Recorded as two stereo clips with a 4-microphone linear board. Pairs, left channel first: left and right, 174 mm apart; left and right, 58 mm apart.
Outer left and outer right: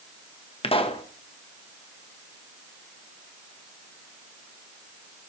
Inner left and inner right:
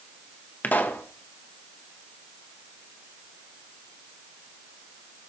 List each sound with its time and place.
0.6 s a pop: 30° left (ahead or behind), 1.2 m